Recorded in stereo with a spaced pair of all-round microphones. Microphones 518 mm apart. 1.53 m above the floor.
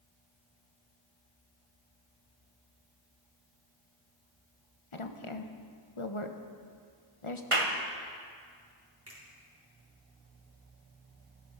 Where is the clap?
75° right (ahead or behind), 1.3 m.